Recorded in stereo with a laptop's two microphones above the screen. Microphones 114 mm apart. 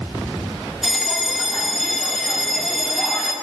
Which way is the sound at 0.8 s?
Centre (ahead or behind).